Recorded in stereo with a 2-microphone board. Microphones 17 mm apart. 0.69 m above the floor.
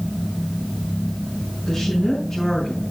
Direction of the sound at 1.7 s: 25° left (ahead or behind).